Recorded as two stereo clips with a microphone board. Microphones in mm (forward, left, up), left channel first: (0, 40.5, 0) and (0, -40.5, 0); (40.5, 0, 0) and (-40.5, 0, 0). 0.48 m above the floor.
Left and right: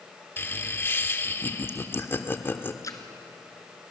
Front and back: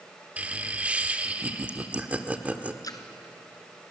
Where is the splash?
40° left, 2.0 m.